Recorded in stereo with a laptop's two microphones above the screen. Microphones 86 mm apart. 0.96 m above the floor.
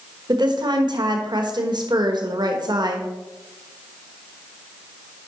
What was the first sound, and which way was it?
A woman speaking, 60° right (ahead or behind).